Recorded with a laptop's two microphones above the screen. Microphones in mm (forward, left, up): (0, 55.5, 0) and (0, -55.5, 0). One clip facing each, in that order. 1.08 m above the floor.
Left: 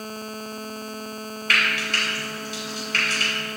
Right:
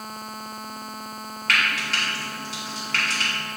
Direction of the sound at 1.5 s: 70° right (ahead or behind).